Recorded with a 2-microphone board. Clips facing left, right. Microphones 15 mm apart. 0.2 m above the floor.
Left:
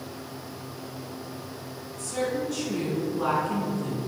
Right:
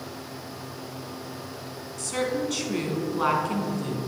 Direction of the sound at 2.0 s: 45° right (ahead or behind).